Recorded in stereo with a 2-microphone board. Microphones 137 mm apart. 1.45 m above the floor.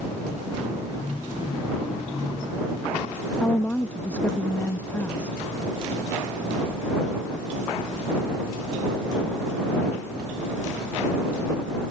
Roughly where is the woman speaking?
Centre.